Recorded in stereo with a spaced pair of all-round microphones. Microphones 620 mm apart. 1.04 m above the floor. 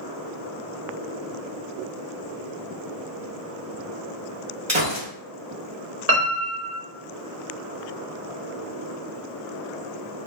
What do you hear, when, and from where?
4.7 s a gunshot: 25° right (ahead or behind), 0.9 m
6.1 s a piano: 80° right, 0.8 m